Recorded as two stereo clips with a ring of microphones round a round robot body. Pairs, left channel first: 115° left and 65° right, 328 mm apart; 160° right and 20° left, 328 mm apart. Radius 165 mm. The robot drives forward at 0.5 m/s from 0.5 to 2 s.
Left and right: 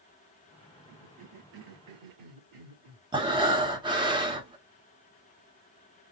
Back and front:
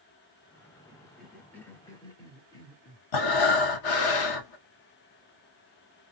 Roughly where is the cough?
Ahead right.